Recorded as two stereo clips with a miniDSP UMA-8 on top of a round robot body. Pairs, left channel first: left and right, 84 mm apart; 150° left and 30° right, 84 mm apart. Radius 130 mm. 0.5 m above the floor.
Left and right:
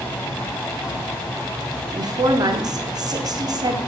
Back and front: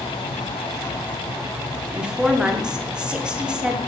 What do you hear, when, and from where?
1.9 s a woman speaking: 110° right, 1.8 m